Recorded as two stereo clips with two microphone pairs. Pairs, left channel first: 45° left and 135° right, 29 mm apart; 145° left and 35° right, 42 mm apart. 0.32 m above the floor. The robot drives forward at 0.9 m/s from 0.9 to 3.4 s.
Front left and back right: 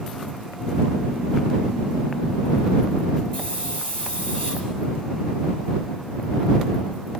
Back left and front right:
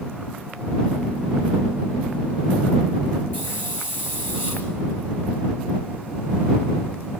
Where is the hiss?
105° left, 7.5 m.